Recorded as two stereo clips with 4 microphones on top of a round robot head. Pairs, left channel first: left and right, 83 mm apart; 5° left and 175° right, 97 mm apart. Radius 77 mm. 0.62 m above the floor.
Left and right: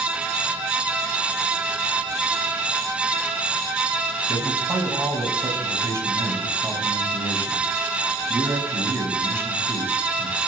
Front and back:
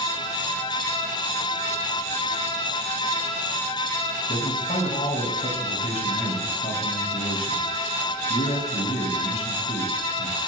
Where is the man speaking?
30° right, 5.5 m.